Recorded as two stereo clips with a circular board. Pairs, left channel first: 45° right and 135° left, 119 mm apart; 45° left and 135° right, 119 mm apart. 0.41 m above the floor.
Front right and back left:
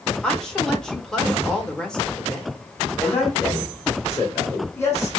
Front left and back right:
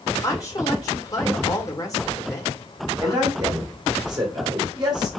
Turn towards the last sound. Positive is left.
turn(degrees=-105)